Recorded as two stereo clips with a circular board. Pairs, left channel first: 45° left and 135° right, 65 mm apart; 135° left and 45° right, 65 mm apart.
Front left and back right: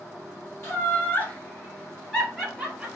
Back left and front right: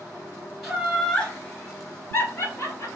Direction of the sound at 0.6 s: 40° left.